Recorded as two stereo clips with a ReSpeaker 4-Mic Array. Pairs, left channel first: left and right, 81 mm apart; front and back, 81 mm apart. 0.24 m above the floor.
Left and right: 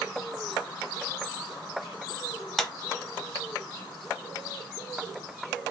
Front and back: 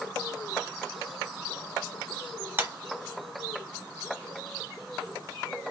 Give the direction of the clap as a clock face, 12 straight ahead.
6 o'clock.